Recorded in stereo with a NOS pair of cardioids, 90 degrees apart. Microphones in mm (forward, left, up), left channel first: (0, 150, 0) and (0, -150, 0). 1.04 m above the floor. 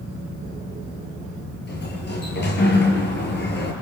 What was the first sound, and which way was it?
A sliding door, 35° left.